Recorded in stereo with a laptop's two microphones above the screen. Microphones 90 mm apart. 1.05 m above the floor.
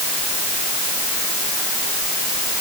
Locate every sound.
Only background noise.